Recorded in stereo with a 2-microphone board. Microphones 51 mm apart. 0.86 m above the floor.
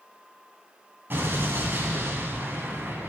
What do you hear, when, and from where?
1.1 s an explosion: 45° right (ahead or behind), 1.5 m